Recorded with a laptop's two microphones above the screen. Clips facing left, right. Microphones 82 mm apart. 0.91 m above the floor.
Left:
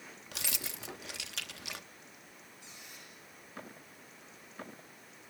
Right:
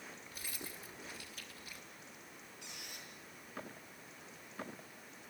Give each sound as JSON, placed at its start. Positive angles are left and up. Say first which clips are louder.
{"t": 0.3, "sound": "keys jangling", "louder": "left 8 dB", "side_deg": 85, "distance_m": 0.7}
{"t": 2.6, "sound": "a squeak", "louder": "right 3 dB", "side_deg": -70, "distance_m": 8.5}